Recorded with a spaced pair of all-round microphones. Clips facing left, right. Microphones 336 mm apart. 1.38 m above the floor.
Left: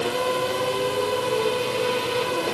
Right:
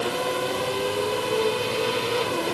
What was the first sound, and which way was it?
Only background noise.